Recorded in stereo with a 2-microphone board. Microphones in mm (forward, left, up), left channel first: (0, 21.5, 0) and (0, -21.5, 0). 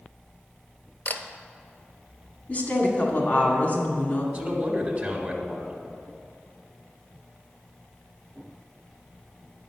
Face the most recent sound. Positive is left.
turn(degrees=-30)  # may be behind; listen again after turning